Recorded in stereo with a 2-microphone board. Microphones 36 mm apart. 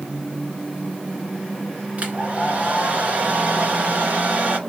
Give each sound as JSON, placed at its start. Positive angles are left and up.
{"t": 2.0, "sound": "a hair dryer", "side_deg": -45, "distance_m": 2.0}